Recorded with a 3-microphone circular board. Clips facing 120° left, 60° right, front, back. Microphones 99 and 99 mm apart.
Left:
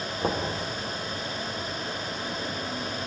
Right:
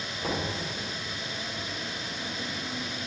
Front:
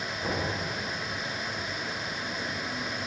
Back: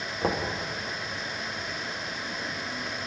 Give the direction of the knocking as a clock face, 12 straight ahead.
7 o'clock.